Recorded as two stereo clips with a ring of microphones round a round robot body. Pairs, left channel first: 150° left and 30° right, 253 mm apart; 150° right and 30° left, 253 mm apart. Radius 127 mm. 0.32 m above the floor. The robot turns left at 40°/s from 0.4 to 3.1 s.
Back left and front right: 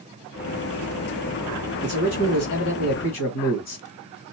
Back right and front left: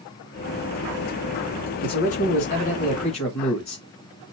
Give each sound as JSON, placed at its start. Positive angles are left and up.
{"t": 1.8, "sound": "a man speaking", "azimuth_deg": -160, "distance_m": 1.8}